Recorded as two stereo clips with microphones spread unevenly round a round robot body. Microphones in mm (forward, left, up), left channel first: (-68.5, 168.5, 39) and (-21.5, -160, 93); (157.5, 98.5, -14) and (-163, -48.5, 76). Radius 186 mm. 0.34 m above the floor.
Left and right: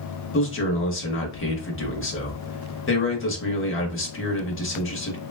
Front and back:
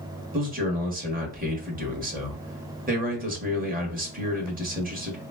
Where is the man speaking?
130° left, 1.5 m.